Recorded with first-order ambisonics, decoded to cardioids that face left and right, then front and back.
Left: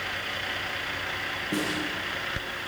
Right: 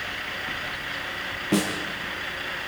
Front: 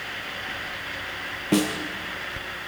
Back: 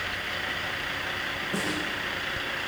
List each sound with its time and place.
1.5 s a snare drum: 25° right, 3.5 m